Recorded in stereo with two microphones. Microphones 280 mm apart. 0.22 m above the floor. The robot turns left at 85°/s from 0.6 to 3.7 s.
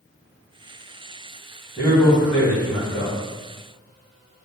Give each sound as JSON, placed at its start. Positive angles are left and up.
{"t": 1.8, "sound": "a man speaking", "side_deg": -15, "distance_m": 1.7}